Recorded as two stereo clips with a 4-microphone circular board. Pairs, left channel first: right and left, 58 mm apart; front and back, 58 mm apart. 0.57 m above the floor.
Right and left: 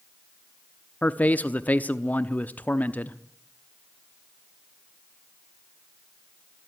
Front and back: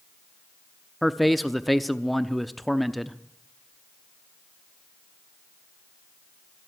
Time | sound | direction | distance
1.0 | a man speaking | 90° right | 0.8 m